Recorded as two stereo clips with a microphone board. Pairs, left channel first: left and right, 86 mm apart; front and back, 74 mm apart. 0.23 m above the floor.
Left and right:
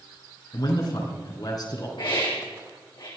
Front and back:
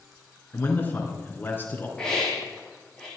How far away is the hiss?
About 6 m.